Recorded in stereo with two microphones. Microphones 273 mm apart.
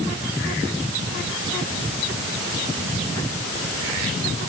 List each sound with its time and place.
Only background noise.